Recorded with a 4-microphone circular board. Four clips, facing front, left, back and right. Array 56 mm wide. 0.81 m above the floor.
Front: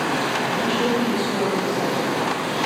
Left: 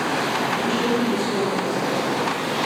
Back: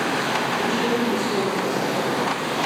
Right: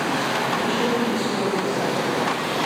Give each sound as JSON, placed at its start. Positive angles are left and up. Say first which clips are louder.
{"t": 0.5, "sound": "a man speaking", "louder": "even, front 2 dB", "azimuth_deg": -10, "distance_m": 4.5}